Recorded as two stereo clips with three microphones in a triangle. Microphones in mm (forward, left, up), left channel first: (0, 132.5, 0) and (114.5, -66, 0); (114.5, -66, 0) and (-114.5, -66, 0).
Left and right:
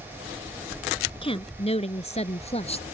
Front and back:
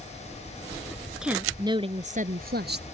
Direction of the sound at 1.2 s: 95° left.